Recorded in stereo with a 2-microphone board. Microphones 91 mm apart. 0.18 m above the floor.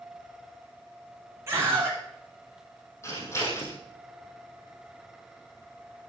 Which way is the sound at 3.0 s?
30° left (ahead or behind).